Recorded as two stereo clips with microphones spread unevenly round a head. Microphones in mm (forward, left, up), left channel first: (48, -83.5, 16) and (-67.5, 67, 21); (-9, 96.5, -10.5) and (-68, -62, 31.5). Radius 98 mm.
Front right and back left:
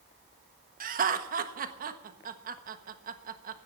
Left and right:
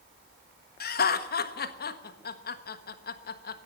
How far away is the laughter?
About 1.4 m.